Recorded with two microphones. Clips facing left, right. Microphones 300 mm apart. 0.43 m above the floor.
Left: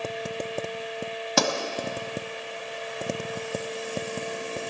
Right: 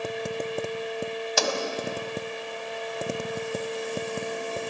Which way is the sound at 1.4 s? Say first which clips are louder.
Left 3 dB; 60° left (ahead or behind).